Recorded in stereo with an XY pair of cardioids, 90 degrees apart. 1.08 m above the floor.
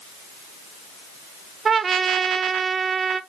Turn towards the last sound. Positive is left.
turn(degrees=-45)